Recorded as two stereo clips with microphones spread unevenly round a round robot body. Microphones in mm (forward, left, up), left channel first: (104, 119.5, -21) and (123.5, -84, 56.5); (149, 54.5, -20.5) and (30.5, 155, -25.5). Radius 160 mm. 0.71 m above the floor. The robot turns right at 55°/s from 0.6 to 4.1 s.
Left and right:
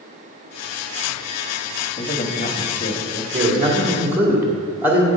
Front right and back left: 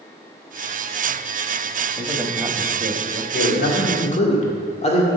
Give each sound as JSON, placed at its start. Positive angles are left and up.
{"t": 2.0, "sound": "a man speaking", "azimuth_deg": 50, "distance_m": 1.0}
{"t": 3.3, "sound": "a man speaking", "azimuth_deg": -35, "distance_m": 2.0}